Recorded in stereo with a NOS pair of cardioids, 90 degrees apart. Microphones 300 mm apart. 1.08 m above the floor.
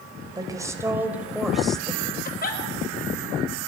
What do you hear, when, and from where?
0.3 s a woman speaking: 15° right, 4.5 m; by 2.1 s 5° left, 4.5 m
2.2 s a giggle: 30° left, 5 m